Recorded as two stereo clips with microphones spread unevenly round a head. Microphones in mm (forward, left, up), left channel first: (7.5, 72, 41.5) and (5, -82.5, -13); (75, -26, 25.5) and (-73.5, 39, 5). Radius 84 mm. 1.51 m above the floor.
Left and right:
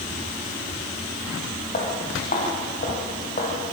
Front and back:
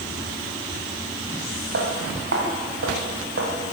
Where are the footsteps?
130° left, 6 m.